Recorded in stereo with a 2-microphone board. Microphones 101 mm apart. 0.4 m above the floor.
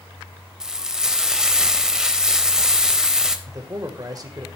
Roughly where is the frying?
Centre.